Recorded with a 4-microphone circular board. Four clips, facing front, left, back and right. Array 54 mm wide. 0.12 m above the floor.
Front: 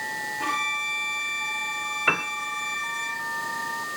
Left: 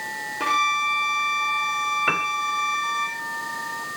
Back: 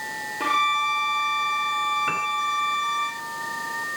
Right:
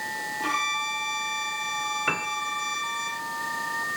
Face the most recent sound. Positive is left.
turn(degrees=20)